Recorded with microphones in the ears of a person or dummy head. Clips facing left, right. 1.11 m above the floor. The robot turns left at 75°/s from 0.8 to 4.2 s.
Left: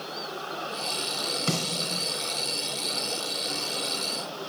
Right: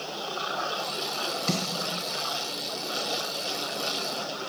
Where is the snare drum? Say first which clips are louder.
Left 1 dB; 50° left (ahead or behind), 4 m; by 2.0 s 80° left, 4 m.